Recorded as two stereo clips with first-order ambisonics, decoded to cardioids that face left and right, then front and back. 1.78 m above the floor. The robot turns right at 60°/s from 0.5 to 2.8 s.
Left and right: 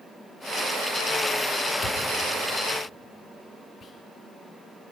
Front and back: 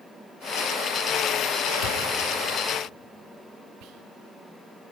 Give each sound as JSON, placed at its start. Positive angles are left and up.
{"t": 1.8, "sound": "a thud", "azimuth_deg": 0, "distance_m": 2.5}
{"t": 3.8, "sound": "whispering", "azimuth_deg": 155, "distance_m": 0.7}